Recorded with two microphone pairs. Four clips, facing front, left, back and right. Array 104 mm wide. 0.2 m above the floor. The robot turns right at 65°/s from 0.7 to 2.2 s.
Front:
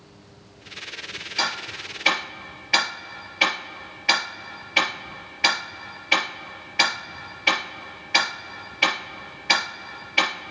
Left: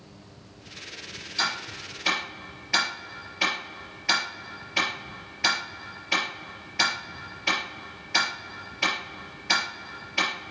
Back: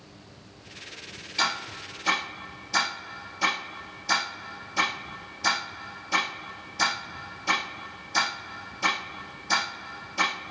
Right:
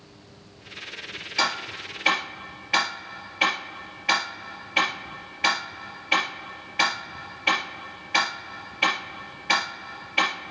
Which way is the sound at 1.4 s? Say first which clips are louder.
Right 4 dB, even; 65° right.